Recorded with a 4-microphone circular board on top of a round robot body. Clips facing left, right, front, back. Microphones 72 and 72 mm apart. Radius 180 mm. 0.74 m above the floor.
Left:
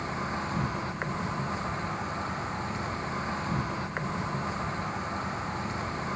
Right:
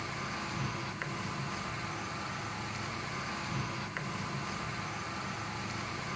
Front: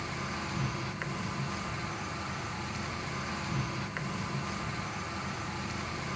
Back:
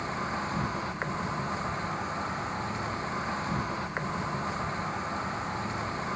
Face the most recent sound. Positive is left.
turn(degrees=135)